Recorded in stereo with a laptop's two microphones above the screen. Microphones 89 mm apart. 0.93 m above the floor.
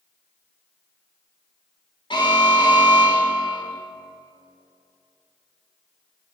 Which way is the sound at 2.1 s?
60° left (ahead or behind).